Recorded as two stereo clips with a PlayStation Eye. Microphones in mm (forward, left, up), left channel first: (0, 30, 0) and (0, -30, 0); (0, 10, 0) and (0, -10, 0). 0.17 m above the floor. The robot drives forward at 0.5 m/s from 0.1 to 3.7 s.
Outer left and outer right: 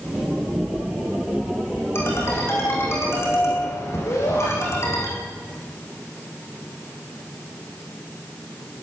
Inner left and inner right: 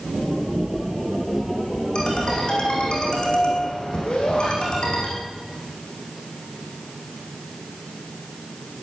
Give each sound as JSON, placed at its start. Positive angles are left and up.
{"t": 1.9, "sound": "a ringtone", "side_deg": 45, "distance_m": 7.5}
{"t": 4.1, "sound": "a shout", "side_deg": 80, "distance_m": 7.0}